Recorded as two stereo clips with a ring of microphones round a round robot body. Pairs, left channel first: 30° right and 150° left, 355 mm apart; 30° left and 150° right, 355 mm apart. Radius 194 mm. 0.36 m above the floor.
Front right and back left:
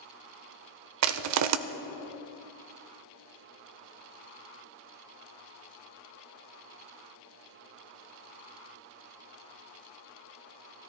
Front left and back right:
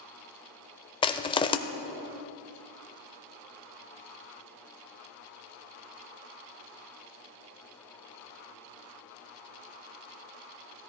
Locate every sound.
1.0 s crushing: 105° left, 0.5 m